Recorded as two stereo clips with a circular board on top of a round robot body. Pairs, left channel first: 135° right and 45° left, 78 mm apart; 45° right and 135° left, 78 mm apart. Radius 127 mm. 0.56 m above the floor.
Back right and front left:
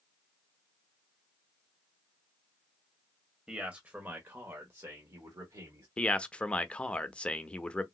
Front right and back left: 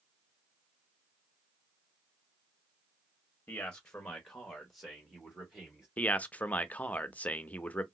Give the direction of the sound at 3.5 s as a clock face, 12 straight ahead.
12 o'clock.